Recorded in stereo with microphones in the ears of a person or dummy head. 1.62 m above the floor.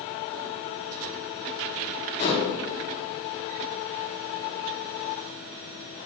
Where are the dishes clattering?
40° left (ahead or behind), 1.8 m.